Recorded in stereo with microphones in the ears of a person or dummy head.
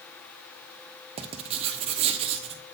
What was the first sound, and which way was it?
Writing, 35° right (ahead or behind).